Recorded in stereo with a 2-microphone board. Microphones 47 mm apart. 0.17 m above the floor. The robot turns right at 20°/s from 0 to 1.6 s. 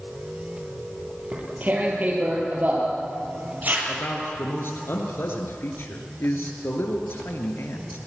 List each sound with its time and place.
1.3 s tearing paper: 35° right (ahead or behind), 5 m; by 3.8 s 40° right (ahead or behind), 5 m
3.9 s a man speaking: 55° left (ahead or behind), 3.5 m